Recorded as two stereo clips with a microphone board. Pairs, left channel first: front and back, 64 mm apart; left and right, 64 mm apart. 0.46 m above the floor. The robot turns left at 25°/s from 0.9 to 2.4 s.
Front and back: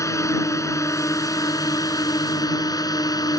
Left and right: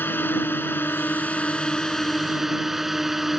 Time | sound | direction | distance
0.0 | a drone | 35° left | ?